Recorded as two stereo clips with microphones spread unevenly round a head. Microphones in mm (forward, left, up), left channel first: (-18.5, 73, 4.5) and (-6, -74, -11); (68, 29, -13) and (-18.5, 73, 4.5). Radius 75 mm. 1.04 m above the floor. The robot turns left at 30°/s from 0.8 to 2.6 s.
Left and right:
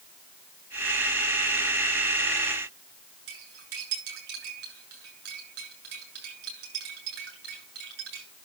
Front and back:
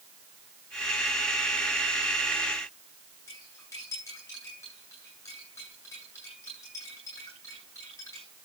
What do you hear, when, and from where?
3.3 s cutlery clinking: 100° right, 8.5 m